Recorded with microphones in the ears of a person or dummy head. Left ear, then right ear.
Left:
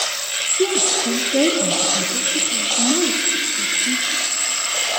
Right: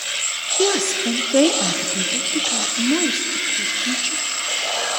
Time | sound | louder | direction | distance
0.6 | a woman speaking | right 1 dB | 50° right (ahead or behind) | 0.7 m